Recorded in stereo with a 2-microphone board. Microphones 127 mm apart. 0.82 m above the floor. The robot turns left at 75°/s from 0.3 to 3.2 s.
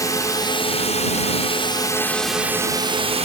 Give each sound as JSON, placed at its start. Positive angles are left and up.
{"t": 0.0, "sound": "a drone", "azimuth_deg": 150}